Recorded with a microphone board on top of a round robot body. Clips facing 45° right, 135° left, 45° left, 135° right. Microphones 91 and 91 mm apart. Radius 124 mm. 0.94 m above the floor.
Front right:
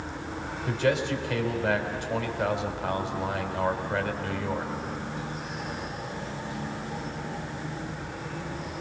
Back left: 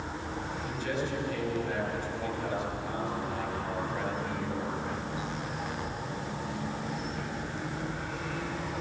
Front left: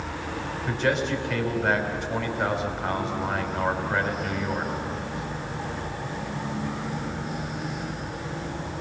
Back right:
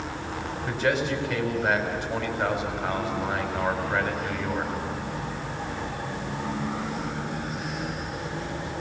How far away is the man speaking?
About 4.5 m.